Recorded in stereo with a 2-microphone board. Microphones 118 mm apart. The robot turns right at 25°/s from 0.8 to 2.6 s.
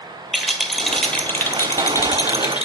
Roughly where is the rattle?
Ahead.